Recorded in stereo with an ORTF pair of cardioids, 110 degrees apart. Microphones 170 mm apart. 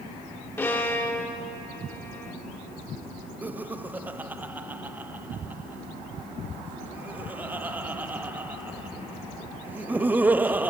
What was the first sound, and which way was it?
A violin, 15° left.